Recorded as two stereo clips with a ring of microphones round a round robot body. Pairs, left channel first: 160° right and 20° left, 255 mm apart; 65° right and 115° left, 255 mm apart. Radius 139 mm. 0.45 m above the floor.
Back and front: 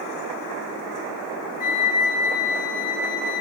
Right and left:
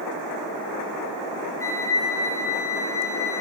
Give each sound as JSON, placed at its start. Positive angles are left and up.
{"t": 1.6, "sound": "a flute", "azimuth_deg": -145, "distance_m": 3.0}